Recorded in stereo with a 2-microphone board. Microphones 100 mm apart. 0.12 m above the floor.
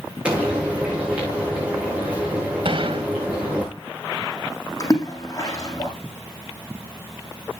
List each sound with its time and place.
0.2 s frying: 10° right (ahead or behind), 8 m
2.6 s a gunshot: 55° right (ahead or behind), 2.5 m
4.8 s a splash: 35° left (ahead or behind), 6 m